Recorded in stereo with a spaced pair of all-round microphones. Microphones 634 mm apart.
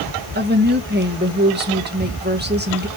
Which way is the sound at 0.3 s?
15° right (ahead or behind).